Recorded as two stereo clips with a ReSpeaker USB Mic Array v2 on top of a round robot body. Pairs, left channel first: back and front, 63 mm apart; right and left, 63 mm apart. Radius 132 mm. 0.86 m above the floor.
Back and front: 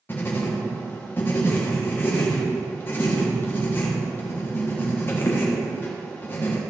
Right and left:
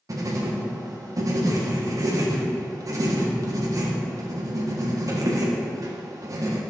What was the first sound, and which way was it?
Writing, 125° left.